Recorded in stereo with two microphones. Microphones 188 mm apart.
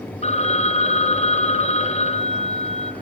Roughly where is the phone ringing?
Left.